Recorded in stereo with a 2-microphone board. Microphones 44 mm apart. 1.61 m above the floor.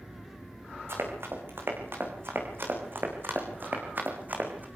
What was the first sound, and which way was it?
Running footsteps, 65° right (ahead or behind).